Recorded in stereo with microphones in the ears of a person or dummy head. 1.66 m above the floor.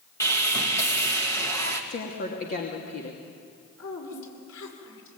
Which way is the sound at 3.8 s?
75° left (ahead or behind).